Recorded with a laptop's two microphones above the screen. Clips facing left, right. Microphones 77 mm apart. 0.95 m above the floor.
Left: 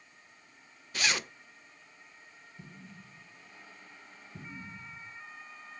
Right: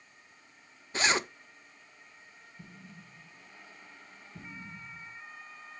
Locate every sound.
0.9 s a zipper: 30° right (ahead or behind), 0.6 m
2.6 s an explosion: 60° left (ahead or behind), 5 m